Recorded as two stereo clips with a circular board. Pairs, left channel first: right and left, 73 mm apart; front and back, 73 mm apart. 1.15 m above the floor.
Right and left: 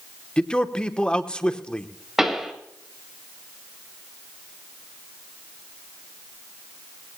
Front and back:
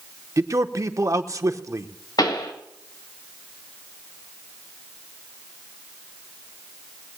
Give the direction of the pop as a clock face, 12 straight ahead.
12 o'clock.